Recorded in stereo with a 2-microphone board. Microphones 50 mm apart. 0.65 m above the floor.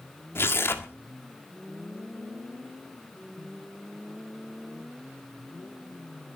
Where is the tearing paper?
50° left (ahead or behind), 1.7 m.